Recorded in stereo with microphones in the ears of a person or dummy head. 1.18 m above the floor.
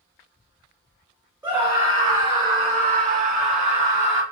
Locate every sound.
1.4 s a scream: 15° right (ahead or behind), 1.2 m; by 4.2 s 30° right (ahead or behind), 1.2 m